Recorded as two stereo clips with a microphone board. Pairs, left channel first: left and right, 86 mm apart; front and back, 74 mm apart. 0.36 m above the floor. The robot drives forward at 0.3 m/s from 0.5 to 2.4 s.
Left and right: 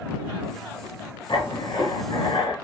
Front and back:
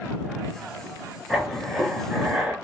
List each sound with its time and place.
1.3 s writing: 90° left, 2.0 m; by 2.5 s 100° left, 2.0 m